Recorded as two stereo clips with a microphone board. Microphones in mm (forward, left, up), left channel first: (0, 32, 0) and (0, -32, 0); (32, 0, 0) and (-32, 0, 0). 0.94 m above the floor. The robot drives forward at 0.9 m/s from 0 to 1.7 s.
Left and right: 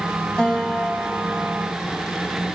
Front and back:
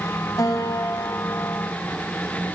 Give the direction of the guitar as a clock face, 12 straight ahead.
11 o'clock.